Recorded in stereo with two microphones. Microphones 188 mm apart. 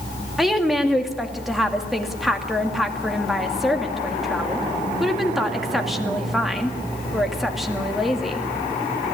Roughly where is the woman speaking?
Centre.